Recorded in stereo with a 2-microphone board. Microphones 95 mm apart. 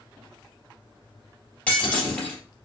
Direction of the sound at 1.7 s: 15° left (ahead or behind).